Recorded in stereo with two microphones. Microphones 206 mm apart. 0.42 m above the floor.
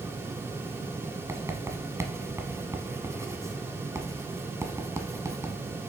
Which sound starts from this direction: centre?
Writing, at 1.3 s.